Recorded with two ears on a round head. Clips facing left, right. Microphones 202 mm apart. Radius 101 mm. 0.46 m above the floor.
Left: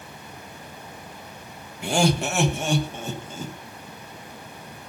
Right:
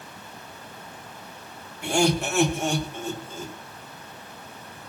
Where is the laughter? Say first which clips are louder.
Even; 60° left (ahead or behind), 2.5 m; by 3.5 s 55° left (ahead or behind), 3 m.